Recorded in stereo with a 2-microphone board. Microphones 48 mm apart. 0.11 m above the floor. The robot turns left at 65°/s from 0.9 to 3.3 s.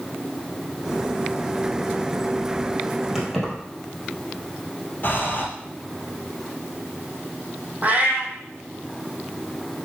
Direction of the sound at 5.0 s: 45° left (ahead or behind).